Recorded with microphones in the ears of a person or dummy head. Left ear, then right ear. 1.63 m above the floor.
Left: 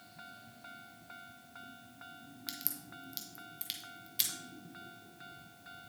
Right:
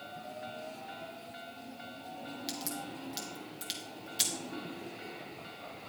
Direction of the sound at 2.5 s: 5° left (ahead or behind).